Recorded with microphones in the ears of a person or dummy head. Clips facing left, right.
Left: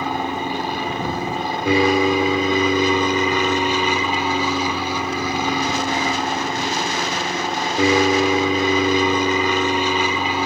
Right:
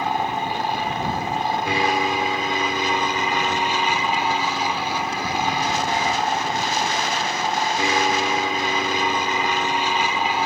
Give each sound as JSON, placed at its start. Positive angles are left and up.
{"t": 0.0, "sound": "an aircraft", "side_deg": 70}